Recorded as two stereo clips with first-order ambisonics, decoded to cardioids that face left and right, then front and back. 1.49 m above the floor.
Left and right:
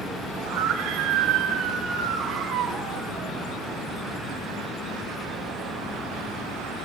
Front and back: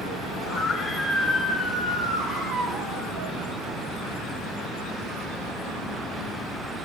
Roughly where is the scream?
Right.